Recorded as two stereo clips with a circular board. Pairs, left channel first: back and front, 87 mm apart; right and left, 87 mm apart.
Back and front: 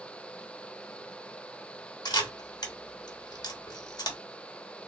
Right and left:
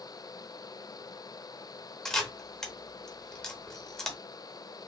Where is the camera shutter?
170° right, 0.7 m.